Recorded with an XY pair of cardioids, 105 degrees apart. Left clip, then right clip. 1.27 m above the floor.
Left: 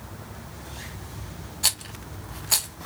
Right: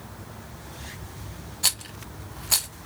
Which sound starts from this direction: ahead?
A rattle, at 1.6 s.